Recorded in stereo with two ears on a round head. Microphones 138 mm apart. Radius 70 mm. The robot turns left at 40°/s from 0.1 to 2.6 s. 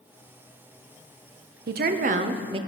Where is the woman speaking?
110° right, 0.5 m; by 2.6 s 145° right, 0.5 m.